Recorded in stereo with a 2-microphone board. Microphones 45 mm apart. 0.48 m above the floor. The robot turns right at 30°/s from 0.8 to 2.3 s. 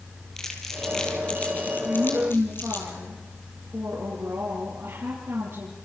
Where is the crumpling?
10° left (ahead or behind), 4 m; by 2.9 s 55° left (ahead or behind), 4 m.